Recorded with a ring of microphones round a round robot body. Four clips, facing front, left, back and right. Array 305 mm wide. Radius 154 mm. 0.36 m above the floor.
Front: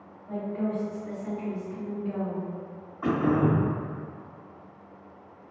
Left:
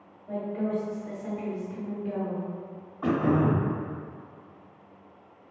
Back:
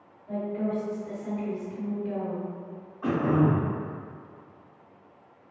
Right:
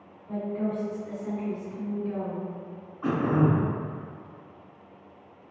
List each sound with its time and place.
0.3 s a woman speaking: 125° left, 1.7 m
3.0 s throat clearing: 70° left, 0.6 m